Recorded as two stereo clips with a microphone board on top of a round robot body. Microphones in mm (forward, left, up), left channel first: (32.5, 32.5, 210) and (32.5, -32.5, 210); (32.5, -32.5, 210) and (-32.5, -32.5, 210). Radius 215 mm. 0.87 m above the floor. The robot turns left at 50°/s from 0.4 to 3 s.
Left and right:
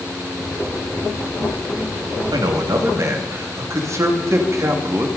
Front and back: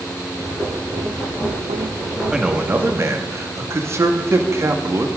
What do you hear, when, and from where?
2.3 s a man speaking: 100° right, 2 m; by 5.1 s 135° right, 2 m